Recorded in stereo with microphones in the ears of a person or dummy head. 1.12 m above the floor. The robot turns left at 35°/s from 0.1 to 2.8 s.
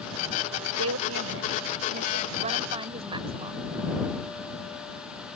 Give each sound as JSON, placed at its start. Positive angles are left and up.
{"t": 0.8, "sound": "a woman speaking", "azimuth_deg": -80}